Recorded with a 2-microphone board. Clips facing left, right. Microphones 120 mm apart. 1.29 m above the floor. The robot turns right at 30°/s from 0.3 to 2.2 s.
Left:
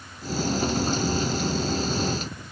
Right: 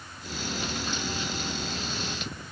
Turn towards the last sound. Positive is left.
No sound to turn to.